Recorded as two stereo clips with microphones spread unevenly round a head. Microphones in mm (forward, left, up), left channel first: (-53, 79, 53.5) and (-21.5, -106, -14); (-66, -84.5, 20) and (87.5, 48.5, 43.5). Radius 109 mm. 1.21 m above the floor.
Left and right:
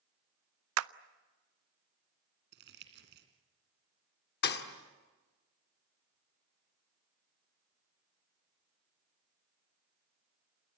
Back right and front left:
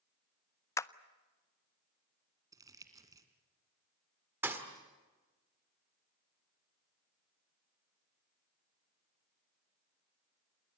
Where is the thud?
120° left, 1.8 m.